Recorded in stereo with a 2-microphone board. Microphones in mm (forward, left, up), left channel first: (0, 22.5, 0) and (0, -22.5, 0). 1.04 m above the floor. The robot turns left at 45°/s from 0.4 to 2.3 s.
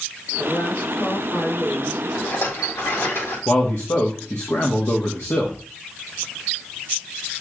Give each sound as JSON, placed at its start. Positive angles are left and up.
{"t": 0.4, "sound": "a woman speaking", "azimuth_deg": 160, "distance_m": 4.5}
{"t": 2.1, "sound": "a rattle", "side_deg": 75, "distance_m": 2.5}
{"t": 3.5, "sound": "a man speaking", "side_deg": 65, "distance_m": 1.4}